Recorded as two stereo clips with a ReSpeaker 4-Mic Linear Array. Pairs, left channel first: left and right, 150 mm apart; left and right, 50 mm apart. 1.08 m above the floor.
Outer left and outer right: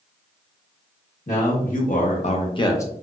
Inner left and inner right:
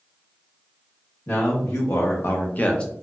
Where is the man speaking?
60° left (ahead or behind), 1.0 m; by 2.9 s 20° left (ahead or behind), 0.6 m.